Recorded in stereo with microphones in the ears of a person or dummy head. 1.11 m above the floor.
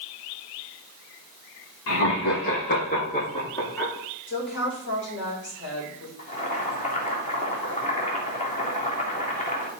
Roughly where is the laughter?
Left.